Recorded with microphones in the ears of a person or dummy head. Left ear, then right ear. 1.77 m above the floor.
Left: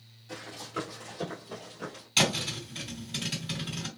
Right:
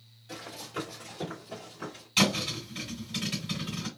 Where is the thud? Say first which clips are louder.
Even; 10° left (ahead or behind), 2 m.